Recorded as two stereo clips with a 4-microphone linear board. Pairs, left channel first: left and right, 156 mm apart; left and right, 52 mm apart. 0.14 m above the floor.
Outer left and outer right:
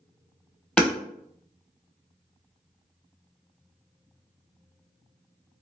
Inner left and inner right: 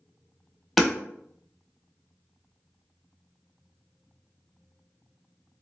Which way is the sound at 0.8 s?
5° left (ahead or behind).